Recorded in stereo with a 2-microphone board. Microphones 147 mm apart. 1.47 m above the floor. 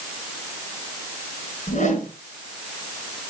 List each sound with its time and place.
1.7 s a whoosh: 55° left (ahead or behind), 3.5 m